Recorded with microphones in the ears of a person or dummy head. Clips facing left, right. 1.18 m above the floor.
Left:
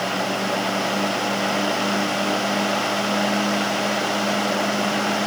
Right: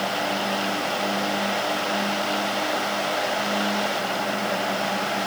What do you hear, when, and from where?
Only background noise.